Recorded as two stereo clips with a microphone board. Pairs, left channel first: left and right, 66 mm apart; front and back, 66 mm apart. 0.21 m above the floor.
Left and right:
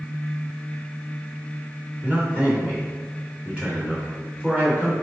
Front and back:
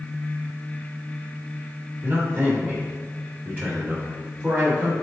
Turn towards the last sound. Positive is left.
turn(degrees=-150)